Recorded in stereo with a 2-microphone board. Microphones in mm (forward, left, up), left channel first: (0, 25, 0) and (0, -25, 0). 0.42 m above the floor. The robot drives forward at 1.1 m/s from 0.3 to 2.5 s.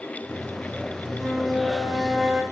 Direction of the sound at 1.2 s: 10° right (ahead or behind).